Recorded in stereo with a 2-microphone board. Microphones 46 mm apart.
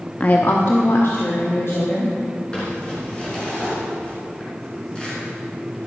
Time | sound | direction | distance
0.2 | a woman speaking | 30° left (ahead or behind) | 0.6 m
2.5 | crumpling | 20° left (ahead or behind) | 4 m